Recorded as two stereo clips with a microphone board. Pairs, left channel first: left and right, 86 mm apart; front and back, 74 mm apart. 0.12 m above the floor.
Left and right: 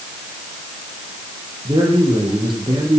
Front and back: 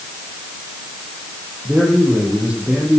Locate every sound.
1.6 s a man speaking: 110° right, 5.5 m